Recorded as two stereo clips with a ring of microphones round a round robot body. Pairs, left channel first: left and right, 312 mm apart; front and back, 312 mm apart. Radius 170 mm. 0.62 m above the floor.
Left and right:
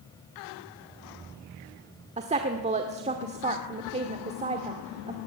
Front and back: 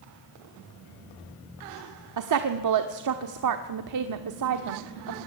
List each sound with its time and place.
2.2 s a woman speaking: 160° right, 1.3 m